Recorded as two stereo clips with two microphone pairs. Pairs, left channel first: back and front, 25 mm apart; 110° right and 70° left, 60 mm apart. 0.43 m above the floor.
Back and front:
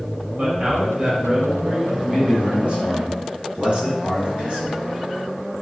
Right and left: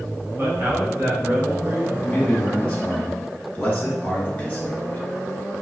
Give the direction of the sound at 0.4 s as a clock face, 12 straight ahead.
11 o'clock.